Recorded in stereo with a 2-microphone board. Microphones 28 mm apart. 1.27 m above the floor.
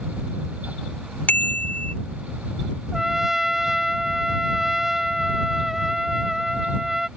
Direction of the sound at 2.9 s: 10° right (ahead or behind).